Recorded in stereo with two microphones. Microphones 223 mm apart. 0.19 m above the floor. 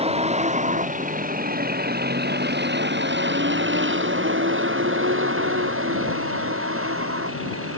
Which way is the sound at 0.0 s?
30° right (ahead or behind).